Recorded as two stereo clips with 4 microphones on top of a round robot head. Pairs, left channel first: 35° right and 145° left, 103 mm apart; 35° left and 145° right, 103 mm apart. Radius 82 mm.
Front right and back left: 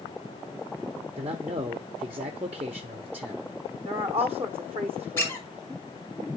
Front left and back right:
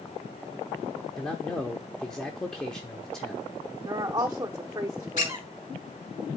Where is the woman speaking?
160° left, 0.7 m.